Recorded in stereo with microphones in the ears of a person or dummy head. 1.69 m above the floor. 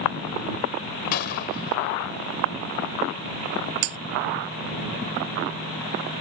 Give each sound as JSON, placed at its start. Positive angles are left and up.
{"t": 1.1, "sound": "a gunshot", "side_deg": 55}
{"t": 3.8, "sound": "breaking glass", "side_deg": -45}